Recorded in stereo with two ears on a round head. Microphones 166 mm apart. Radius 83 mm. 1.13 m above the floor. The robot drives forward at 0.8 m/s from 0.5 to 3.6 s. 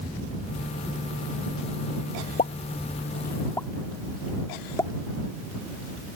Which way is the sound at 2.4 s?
35° left (ahead or behind).